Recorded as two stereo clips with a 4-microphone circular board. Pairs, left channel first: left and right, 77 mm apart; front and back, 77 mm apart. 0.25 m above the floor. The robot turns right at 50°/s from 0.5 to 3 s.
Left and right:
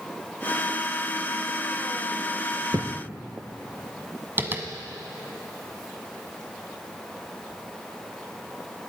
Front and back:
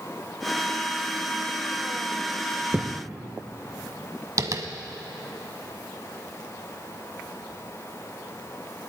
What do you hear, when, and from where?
2.7 s a thud: 110° right, 1.3 m; by 3.0 s 100° right, 1.3 m
4.4 s tapping: 145° right, 1.3 m